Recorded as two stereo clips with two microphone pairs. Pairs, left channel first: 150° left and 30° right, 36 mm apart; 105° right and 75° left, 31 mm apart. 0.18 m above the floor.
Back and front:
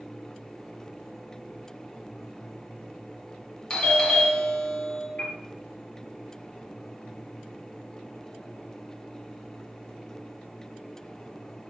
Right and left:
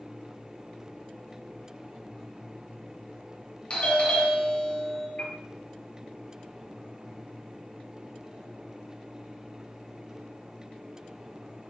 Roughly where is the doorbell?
Behind right.